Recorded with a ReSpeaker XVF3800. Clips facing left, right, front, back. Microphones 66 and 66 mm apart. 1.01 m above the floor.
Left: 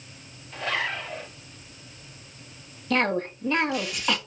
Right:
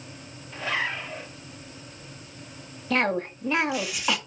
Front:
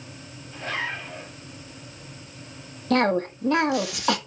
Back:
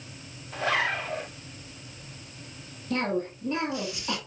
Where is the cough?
5° right, 1.5 m.